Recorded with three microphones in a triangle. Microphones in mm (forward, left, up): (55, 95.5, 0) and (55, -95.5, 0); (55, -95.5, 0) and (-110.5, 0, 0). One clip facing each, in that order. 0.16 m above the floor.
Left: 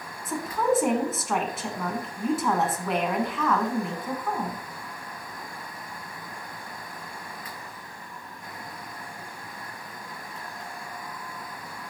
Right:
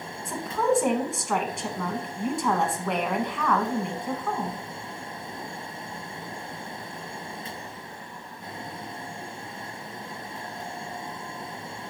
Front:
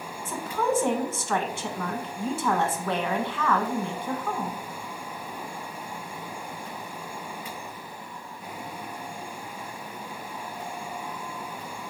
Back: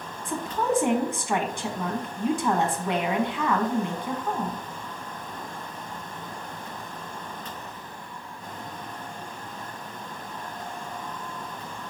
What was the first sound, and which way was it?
A woman speaking, 175° left.